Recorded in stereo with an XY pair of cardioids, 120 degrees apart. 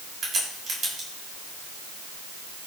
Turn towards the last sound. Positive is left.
turn(degrees=-40)